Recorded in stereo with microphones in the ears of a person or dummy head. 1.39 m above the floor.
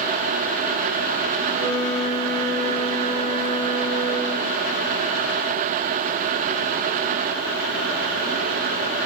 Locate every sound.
1.5 s a flute: 55° right (ahead or behind), 7 m